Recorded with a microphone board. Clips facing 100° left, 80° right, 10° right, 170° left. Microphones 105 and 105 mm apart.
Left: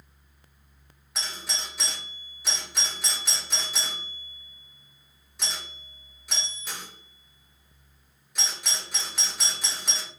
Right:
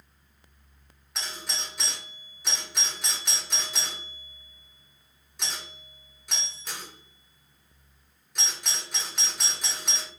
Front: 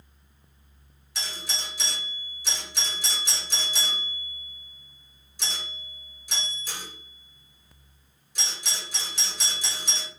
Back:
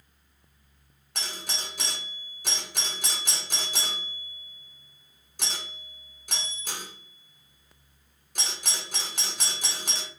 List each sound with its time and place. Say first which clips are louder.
1.1 s a doorbell: left 1 dB, even; 170° right, 1.1 m